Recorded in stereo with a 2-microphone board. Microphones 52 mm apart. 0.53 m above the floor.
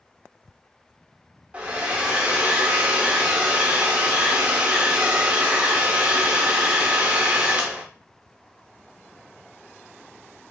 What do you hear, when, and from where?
1.5 s a hair dryer: 20° right (ahead or behind), 0.7 m